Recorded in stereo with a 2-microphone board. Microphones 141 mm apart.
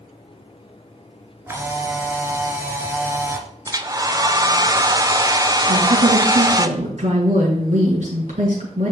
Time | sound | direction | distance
1.5 | a camera shutter | 20° right (ahead or behind) | 1.7 m
3.7 | a hair dryer | 25° right (ahead or behind) | 0.6 m
5.7 | a woman speaking | 65° right (ahead or behind) | 4.5 m